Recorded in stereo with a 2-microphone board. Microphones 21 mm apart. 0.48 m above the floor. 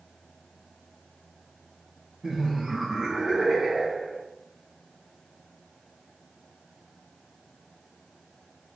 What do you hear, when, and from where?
2.2 s laughter: 15° right (ahead or behind), 2.5 m; by 4.2 s 35° right (ahead or behind), 3 m